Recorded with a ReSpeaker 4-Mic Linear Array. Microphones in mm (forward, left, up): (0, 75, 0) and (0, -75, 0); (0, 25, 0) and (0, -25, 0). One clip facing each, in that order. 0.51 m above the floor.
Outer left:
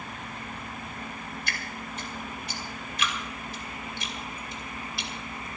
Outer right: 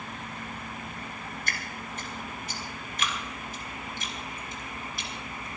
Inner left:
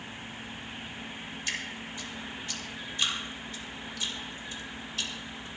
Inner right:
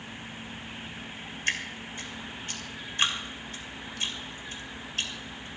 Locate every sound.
1.5 s dripping: 45° right (ahead or behind), 2.5 m